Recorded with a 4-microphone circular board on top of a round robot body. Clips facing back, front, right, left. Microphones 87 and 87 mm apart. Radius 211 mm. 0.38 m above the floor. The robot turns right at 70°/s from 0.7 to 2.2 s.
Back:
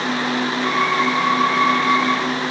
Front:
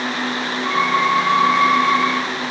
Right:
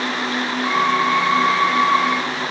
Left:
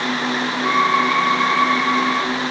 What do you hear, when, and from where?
Only background noise.